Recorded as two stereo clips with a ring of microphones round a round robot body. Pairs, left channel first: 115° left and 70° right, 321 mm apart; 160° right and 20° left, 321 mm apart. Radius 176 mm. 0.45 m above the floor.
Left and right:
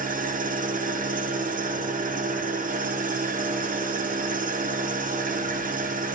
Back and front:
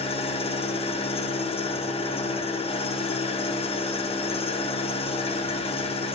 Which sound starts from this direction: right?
An engine running, at 0.0 s.